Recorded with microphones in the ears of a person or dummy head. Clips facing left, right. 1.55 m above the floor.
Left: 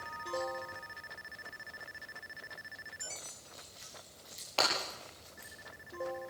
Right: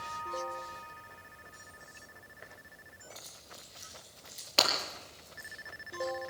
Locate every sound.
3.1 s keys jangling: 10° right (ahead or behind), 9.5 m; by 5.5 s 5° left (ahead or behind), 11 m
4.6 s breaking glass: 25° right (ahead or behind), 7 m